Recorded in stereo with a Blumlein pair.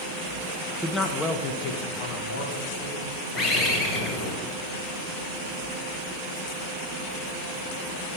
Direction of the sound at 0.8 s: 5° left.